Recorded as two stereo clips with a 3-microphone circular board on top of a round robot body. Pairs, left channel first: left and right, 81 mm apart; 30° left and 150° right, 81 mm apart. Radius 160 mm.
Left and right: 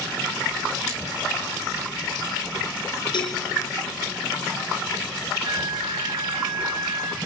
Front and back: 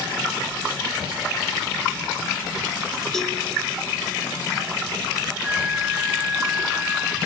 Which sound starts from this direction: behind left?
A cowbell, at 3.1 s.